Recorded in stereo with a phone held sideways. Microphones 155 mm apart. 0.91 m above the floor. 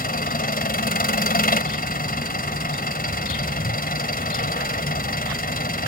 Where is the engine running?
75° left (ahead or behind).